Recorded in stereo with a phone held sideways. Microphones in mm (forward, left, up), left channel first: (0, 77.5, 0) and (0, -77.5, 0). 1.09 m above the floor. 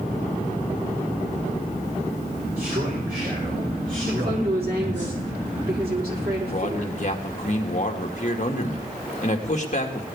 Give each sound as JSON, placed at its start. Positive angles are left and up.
{"t": 2.6, "sound": "a man speaking", "side_deg": -80, "distance_m": 4.0}
{"t": 4.1, "sound": "a woman speaking", "side_deg": -80, "distance_m": 3.0}
{"t": 6.5, "sound": "a man speaking", "side_deg": 50, "distance_m": 1.7}